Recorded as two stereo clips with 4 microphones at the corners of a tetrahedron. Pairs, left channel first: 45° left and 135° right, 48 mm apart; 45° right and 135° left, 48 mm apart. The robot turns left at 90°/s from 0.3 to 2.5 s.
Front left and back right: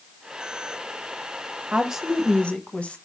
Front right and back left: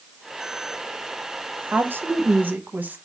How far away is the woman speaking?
About 0.6 m.